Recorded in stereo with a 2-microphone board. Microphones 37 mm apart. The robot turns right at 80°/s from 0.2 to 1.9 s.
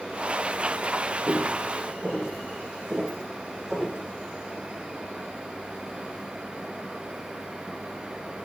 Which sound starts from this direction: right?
Footsteps, at 1.3 s.